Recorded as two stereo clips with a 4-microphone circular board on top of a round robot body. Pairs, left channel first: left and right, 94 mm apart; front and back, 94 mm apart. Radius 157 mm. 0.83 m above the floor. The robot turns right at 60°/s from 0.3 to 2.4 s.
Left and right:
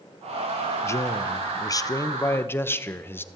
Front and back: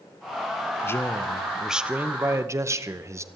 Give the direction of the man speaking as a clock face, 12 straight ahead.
10 o'clock.